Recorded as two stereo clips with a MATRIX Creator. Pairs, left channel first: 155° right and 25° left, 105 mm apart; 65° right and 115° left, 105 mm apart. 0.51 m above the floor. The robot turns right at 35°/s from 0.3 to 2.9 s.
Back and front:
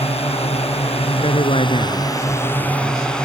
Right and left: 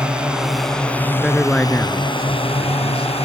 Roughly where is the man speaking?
Behind.